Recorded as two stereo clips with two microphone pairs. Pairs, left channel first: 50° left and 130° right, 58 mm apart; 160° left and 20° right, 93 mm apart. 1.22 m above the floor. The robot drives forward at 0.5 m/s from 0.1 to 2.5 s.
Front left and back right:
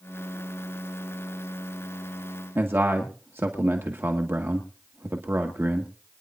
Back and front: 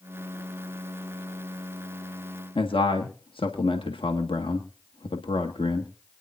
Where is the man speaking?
Straight behind, 1.5 m.